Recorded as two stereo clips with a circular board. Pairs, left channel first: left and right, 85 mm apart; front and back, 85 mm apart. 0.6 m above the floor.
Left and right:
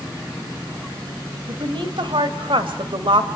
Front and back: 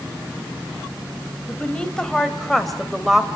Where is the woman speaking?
75° right, 2.5 m; by 3.3 s 95° right, 2 m.